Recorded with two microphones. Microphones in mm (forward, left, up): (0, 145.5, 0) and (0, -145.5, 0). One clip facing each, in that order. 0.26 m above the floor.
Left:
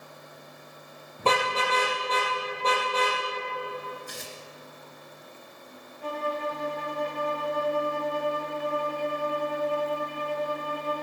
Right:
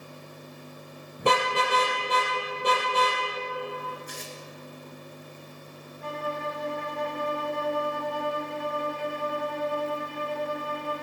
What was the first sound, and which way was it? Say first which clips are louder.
A car horn: right 1 dB; 15° right (ahead or behind).